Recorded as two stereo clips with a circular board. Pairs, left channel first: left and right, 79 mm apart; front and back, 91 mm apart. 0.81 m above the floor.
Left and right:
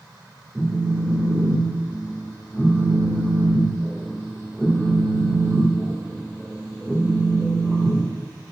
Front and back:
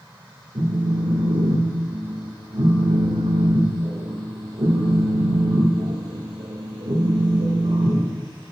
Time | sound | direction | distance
0.6 | a phone buzzing | straight behind | 1.5 m